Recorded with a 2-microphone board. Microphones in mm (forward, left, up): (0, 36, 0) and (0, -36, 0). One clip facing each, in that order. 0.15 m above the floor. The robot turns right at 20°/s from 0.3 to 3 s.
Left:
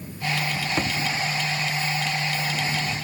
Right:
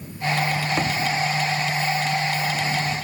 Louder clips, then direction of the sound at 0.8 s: Even; 5° right (ahead or behind).